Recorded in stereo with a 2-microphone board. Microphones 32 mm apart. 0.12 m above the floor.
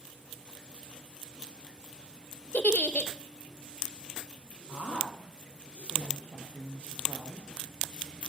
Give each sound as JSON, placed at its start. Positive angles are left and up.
{"t": 2.5, "sound": "a giggle", "side_deg": 55, "distance_m": 0.6}
{"t": 4.7, "sound": "a woman speaking", "side_deg": -65, "distance_m": 3.0}